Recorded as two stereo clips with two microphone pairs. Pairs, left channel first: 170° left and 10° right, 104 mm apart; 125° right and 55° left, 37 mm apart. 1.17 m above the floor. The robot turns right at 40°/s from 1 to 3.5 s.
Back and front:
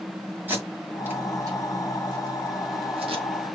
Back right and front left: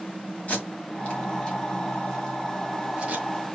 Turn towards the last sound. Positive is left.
turn(degrees=25)